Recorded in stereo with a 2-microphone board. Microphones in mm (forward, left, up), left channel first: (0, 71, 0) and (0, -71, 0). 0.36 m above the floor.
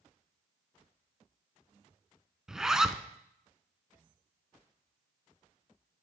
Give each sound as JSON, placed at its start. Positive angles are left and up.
{"t": 2.5, "sound": "a zipper", "side_deg": -5, "distance_m": 0.5}